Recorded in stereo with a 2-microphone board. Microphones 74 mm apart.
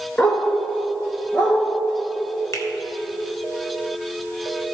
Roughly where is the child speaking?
No child speaking in this recording.